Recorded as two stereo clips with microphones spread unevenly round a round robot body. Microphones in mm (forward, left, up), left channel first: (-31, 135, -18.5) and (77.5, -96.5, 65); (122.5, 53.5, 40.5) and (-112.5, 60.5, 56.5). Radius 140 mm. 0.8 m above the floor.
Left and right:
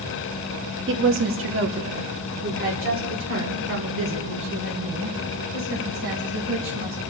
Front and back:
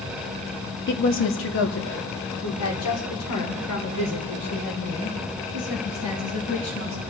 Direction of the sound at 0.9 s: 15° right.